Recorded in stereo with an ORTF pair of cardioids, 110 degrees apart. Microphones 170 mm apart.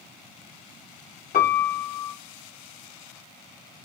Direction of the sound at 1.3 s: 55° left.